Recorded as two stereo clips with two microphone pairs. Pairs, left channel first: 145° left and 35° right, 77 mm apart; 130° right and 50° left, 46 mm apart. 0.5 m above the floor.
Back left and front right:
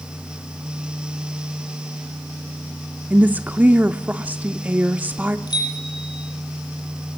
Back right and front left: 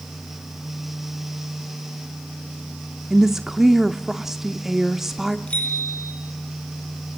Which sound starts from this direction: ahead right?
A woman speaking, at 3.1 s.